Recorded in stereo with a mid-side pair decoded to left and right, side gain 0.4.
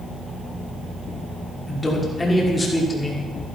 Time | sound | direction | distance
1.7 | a man speaking | 20° left | 6 m